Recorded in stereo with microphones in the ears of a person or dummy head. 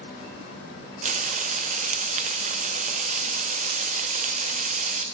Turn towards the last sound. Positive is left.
turn(degrees=-45)  # may be behind; listen again after turning